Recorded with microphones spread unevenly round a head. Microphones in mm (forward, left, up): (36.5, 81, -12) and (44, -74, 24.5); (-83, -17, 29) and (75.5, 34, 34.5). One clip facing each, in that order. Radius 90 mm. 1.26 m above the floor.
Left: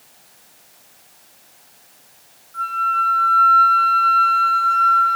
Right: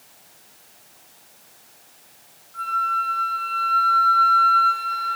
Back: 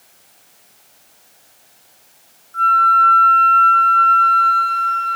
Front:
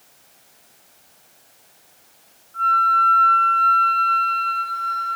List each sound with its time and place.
2.5 s a flute: 170° left, 1.0 m